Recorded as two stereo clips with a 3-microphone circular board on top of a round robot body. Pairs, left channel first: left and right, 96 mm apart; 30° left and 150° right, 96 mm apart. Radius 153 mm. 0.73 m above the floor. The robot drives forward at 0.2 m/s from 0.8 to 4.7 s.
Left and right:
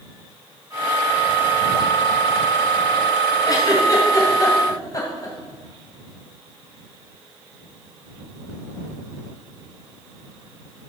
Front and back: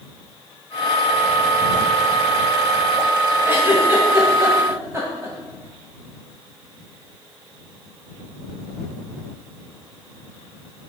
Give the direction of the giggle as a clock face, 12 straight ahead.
7 o'clock.